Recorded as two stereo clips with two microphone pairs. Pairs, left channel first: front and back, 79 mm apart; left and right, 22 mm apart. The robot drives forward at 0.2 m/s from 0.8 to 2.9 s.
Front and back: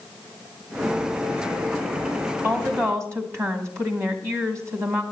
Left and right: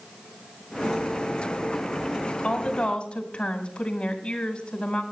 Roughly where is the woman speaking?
Behind left.